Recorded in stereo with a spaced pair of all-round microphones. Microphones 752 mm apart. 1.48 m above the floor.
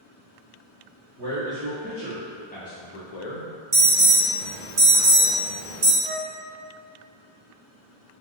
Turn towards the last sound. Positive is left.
turn(degrees=-10)  # may be behind; listen again after turning